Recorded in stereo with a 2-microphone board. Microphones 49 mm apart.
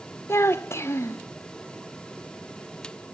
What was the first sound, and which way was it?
A child speaking, 65° left (ahead or behind).